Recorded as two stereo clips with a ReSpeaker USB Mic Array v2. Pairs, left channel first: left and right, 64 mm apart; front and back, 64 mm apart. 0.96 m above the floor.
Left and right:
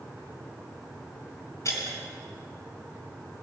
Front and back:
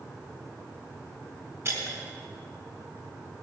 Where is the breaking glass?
130° left, 4.5 m.